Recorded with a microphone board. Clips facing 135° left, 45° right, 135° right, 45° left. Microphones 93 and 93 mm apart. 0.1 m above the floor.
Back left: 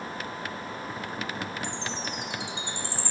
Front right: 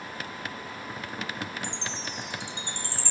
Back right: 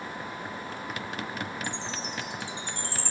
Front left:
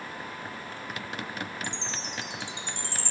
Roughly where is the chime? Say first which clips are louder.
Back left 2 dB, back right 2 dB; behind right.